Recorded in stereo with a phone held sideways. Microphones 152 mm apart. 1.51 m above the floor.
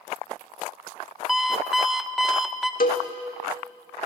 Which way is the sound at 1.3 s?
Centre (ahead or behind).